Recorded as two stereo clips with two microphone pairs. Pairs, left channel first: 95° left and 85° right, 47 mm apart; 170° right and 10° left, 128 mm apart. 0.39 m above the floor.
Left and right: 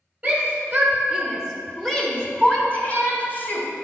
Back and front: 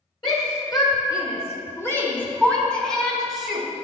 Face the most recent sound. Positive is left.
turn(degrees=95)